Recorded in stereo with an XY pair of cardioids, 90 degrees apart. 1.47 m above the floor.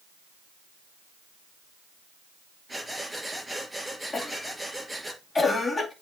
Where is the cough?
25° left, 2.5 m.